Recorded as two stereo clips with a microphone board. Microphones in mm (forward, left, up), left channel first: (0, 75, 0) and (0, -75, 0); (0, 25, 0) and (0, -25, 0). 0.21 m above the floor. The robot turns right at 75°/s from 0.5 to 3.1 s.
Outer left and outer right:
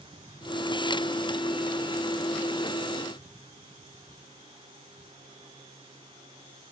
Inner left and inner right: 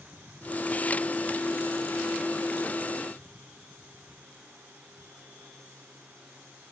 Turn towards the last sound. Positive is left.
No sound to turn to.